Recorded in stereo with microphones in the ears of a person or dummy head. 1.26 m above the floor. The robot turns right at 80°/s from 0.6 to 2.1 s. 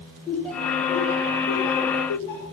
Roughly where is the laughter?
Centre.